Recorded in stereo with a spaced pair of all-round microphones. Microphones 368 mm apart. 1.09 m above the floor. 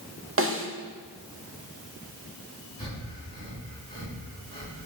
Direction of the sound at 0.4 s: 35° right (ahead or behind).